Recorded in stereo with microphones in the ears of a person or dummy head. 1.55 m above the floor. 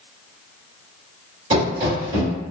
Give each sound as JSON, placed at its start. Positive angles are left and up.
{"t": 1.5, "sound": "running footsteps", "side_deg": -30, "distance_m": 1.8}